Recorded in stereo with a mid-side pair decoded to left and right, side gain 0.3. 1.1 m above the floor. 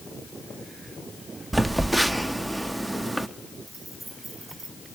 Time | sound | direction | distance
1.5 | a phone buzzing | 25° right | 0.7 m
3.7 | keys jangling | 60° right | 8.5 m